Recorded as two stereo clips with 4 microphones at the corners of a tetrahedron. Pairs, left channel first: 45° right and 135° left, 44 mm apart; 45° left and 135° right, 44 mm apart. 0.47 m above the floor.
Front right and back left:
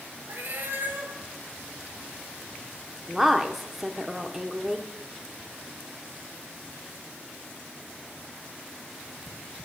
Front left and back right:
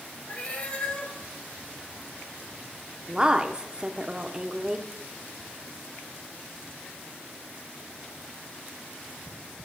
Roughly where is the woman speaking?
Behind right.